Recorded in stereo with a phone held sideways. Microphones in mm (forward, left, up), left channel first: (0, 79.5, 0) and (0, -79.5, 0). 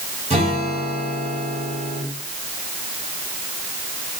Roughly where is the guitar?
Right.